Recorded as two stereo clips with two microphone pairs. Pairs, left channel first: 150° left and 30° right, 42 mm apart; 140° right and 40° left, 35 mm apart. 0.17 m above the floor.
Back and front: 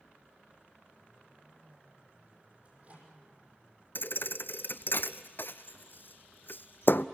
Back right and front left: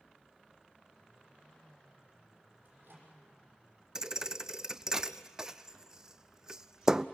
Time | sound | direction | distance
2.6 | a microwave | 20° left | 6.5 m
4.0 | a thud | 115° left | 0.5 m